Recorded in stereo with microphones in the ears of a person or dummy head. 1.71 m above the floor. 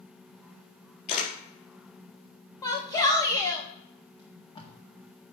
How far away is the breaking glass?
I don't hear breaking glass.